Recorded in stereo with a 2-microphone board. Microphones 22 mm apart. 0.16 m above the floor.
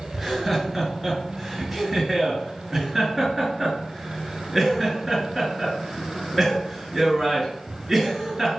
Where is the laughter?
10° right (ahead or behind), 2 m.